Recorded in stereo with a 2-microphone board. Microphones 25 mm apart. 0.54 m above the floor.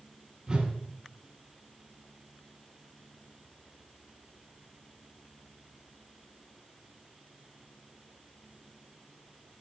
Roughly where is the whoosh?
Right.